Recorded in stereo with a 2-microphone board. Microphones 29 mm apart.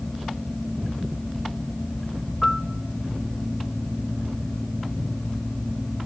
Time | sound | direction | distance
2.4 | a piano | 10° left (ahead or behind) | 0.9 m